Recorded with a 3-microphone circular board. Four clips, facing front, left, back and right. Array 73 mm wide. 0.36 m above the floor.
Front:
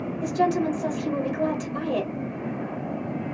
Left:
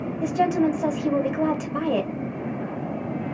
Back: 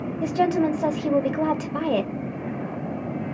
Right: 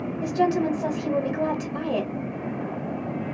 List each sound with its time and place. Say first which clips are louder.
0.2 s a woman speaking: left 2 dB, back 2 dB; 150° left, 1.0 m